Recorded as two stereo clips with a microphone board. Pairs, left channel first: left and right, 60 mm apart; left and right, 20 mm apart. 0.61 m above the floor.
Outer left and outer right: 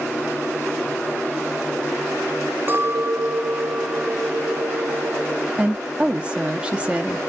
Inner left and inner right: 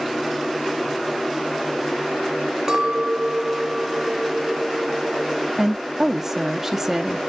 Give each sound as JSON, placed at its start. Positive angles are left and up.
{"t": 2.7, "sound": "a clink", "side_deg": -40, "distance_m": 0.6}
{"t": 5.6, "sound": "a woman speaking", "side_deg": -20, "distance_m": 0.6}